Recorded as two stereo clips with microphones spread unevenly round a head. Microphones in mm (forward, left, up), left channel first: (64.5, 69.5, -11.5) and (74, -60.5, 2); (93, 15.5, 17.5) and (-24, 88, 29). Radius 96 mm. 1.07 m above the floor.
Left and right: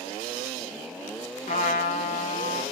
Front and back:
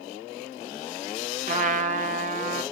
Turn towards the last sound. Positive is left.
turn(degrees=135)